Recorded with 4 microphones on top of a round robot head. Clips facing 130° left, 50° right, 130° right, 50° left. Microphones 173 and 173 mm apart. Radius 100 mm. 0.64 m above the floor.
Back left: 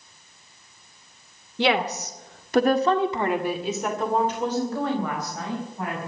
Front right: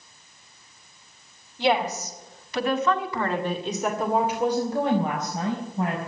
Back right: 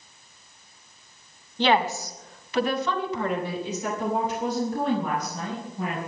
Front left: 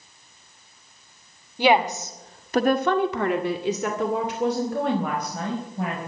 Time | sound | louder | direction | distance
1.6 | a woman speaking | even, front left 3 dB | 130° left | 2.5 m